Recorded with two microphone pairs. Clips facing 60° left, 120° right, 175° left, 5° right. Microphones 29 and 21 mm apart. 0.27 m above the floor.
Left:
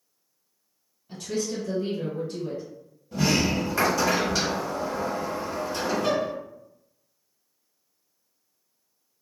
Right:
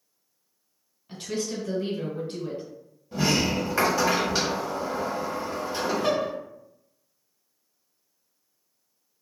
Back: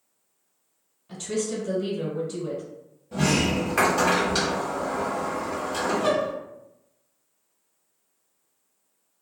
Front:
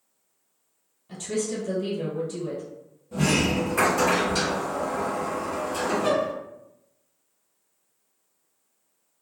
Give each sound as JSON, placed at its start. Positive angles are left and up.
{"t": 1.1, "sound": "a woman speaking", "azimuth_deg": -125, "distance_m": 1.1}
{"t": 3.1, "sound": "a sliding door", "azimuth_deg": 170, "distance_m": 1.0}